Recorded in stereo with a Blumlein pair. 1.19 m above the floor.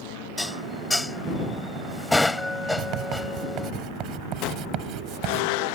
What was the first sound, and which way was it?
Dishes clattering, 5° left.